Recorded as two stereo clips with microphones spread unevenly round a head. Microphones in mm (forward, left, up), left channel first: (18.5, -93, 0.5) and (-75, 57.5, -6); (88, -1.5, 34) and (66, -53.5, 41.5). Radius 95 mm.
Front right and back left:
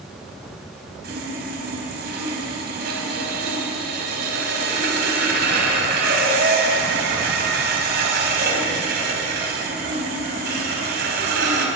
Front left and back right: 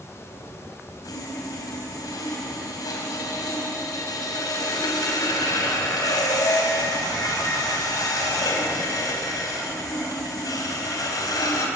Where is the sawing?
80° left, 4.5 m.